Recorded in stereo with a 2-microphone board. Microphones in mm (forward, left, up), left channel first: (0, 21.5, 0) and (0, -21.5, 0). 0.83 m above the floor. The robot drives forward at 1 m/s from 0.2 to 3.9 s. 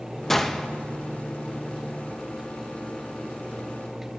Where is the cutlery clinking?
No cutlery clinking in this recording.